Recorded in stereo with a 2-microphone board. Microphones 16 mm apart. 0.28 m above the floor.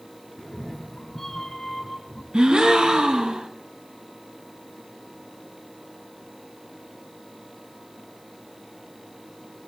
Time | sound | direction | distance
0.4 | a cat meowing | 30° left (ahead or behind) | 2.5 m
2.3 | a gasp | 70° right (ahead or behind) | 1.3 m